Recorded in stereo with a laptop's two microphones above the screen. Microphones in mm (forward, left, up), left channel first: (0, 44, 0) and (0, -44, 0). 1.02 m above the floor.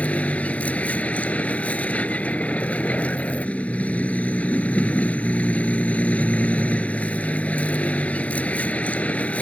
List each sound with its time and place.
0.0 s a vehicle: 15° left (ahead or behind)